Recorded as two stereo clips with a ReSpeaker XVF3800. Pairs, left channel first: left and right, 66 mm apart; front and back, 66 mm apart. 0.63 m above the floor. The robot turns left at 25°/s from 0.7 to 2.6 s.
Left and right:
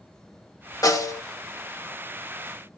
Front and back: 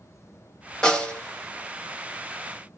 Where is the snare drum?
80° left, 1.0 m; by 1.2 s 70° left, 1.0 m.